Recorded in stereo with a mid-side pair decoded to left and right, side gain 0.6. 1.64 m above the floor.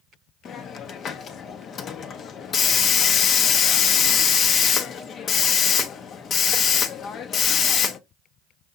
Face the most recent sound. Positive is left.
turn(degrees=45)